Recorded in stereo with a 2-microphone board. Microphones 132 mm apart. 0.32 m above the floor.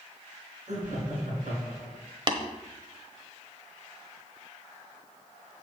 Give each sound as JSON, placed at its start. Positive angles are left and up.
{"t": 0.7, "sound": "laughter", "side_deg": -65, "distance_m": 3.5}
{"t": 2.3, "sound": "tapping", "side_deg": -40, "distance_m": 1.0}